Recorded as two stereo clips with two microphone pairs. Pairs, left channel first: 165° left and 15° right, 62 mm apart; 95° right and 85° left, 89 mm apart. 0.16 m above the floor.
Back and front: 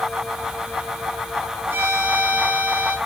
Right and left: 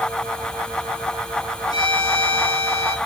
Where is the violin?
65° right, 2.5 m.